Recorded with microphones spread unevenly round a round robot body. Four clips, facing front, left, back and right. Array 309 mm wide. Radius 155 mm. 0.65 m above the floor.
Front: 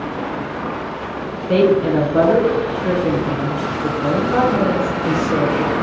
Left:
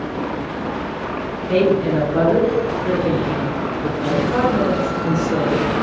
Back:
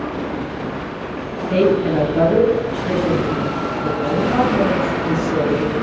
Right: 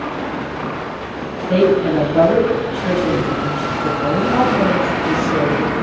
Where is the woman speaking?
15° left, 2 m.